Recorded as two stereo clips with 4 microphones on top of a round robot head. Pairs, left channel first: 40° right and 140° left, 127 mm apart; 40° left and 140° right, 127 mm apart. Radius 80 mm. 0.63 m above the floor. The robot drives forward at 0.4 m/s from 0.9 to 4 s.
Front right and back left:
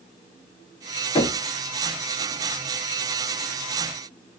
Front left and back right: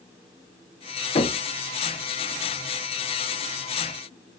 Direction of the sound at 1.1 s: 10° left.